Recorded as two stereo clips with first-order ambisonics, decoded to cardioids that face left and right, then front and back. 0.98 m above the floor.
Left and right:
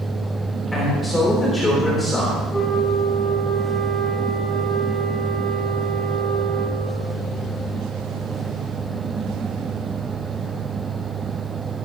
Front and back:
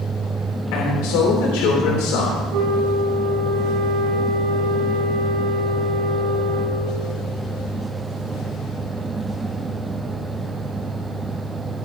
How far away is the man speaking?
About 3.5 m.